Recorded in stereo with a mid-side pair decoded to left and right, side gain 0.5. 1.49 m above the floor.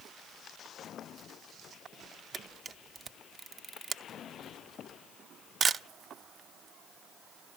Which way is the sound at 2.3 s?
40° right.